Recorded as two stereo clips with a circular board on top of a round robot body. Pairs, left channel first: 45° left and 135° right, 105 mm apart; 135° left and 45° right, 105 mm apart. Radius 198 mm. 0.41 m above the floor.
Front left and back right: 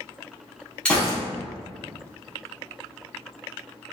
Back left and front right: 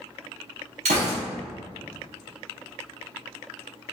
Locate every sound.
0.8 s a gunshot: 35° right, 0.6 m